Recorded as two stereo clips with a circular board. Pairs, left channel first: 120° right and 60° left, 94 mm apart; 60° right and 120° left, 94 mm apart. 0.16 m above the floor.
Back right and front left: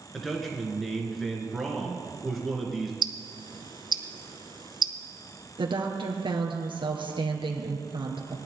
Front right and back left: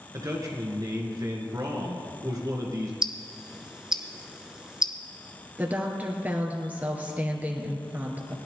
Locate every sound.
0.1 s a man speaking: 150° left, 2.5 m
3.0 s ticking: 40° left, 0.9 m
5.6 s a woman speaking: 50° left, 2.5 m